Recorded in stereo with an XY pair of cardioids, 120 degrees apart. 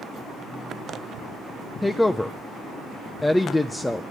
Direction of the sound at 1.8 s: 10° left.